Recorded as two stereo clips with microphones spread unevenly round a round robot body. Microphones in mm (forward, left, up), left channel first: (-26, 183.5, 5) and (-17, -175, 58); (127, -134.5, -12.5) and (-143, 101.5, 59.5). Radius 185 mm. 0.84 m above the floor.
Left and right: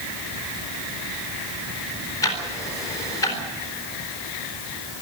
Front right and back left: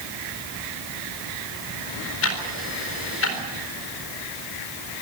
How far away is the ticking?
About 3.5 m.